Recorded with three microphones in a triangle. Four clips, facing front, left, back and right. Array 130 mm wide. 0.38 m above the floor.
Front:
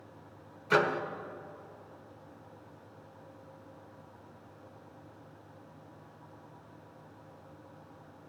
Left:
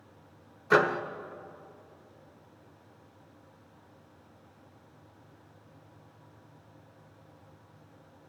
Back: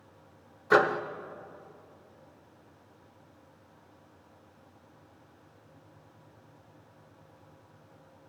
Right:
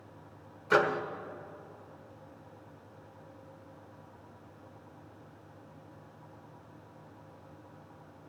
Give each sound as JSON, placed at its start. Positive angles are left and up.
{"t": 0.7, "sound": "a microwave", "azimuth_deg": 155, "distance_m": 0.6}